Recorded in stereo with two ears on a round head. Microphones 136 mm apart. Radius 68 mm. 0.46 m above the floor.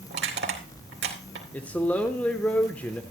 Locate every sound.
0.1 s crushing: 80° right, 3.5 m
1.5 s a man speaking: 10° left (ahead or behind), 1.0 m